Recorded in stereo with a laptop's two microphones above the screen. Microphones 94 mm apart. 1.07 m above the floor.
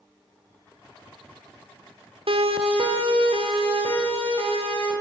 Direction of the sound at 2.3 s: 80° right.